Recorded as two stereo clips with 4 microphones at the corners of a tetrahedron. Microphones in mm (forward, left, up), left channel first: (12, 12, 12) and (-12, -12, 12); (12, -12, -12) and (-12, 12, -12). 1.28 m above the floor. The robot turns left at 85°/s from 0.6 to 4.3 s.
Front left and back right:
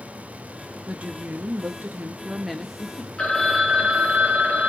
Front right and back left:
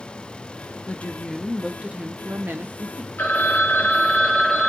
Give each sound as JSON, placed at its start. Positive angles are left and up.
{"t": 0.9, "sound": "a woman speaking", "azimuth_deg": -75, "distance_m": 0.7}
{"t": 3.2, "sound": "a phone ringing", "azimuth_deg": -20, "distance_m": 0.8}